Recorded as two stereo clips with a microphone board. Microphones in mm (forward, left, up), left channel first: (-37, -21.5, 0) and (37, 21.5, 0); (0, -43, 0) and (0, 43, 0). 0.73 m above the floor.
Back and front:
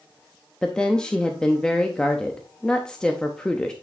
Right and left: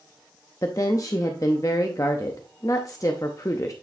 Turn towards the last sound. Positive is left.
turn(degrees=-75)